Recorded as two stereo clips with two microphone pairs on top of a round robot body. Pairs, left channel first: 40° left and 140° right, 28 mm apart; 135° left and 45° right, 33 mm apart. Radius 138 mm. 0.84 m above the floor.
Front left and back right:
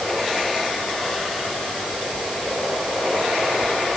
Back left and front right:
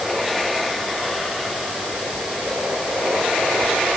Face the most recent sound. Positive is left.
No sound to turn to.